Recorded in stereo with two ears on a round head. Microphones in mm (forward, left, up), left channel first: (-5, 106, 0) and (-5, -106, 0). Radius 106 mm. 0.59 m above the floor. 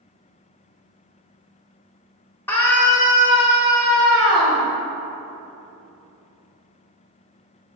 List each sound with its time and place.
2.5 s a scream: 10° left (ahead or behind), 1.6 m; by 4.6 s 5° right (ahead or behind), 3.5 m